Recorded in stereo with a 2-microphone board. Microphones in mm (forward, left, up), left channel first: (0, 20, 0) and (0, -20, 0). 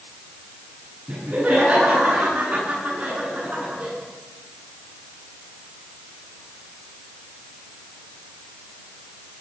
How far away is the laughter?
About 10 m.